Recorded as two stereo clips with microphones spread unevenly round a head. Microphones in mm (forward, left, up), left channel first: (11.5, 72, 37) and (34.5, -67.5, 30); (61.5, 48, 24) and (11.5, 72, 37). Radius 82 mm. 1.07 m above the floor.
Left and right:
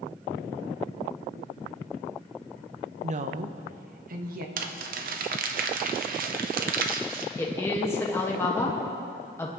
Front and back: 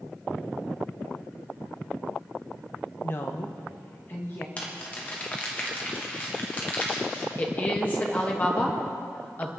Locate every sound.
3.0 s a woman speaking: 60° right, 0.8 m; by 4.5 s 80° right, 1.4 m
4.6 s crumpling: 95° right, 0.9 m
7.4 s a woman speaking: 25° left, 1.5 m